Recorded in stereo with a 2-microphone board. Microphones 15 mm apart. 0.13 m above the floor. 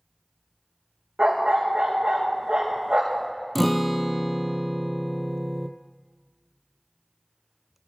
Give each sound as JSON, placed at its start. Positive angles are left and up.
{"t": 1.2, "sound": "a dog barking", "side_deg": -80, "distance_m": 4.0}
{"t": 3.5, "sound": "a guitar", "side_deg": 5, "distance_m": 0.9}